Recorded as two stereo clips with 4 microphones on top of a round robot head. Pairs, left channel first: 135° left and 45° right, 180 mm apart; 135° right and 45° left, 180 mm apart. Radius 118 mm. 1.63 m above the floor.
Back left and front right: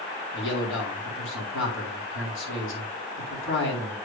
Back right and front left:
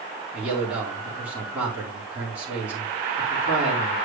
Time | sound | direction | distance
0.3 | a man speaking | 125° left | 4 m